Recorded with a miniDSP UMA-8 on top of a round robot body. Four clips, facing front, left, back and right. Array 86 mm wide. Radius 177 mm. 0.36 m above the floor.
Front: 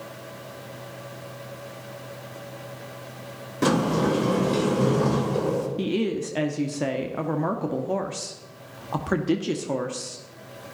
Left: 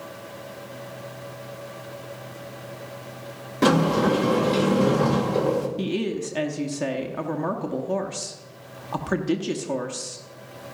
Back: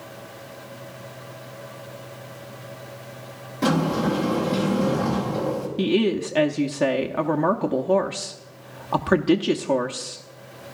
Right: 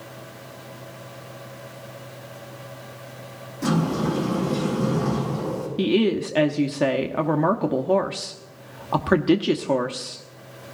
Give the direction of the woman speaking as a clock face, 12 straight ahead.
4 o'clock.